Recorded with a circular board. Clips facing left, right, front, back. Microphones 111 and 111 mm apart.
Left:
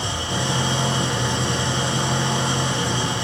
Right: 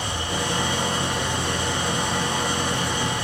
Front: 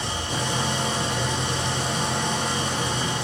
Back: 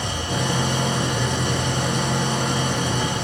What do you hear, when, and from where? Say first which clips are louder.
0.0 s an engine running: left 1 dB, back 3 dB; 155° left, 6 m